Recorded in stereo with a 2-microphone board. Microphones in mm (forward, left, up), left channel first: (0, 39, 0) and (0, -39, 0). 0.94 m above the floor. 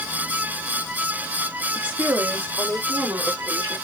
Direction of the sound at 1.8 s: 20° right (ahead or behind).